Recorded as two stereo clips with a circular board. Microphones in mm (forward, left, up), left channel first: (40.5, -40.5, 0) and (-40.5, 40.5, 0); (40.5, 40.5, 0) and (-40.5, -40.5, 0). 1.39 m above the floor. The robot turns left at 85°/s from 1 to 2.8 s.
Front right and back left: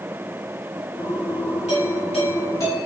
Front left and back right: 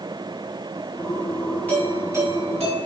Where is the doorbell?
30° right, 3.5 m; by 2.9 s 125° right, 3.5 m.